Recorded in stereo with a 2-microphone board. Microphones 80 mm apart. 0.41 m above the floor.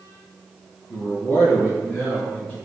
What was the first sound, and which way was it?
A man speaking, 30° left (ahead or behind).